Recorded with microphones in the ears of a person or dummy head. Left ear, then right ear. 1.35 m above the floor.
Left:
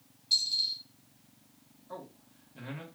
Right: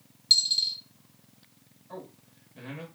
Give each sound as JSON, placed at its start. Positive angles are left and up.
{"t": 0.3, "sound": "a dropped coin", "side_deg": -50, "distance_m": 1.2}
{"t": 1.9, "sound": "a man speaking", "side_deg": 15, "distance_m": 1.4}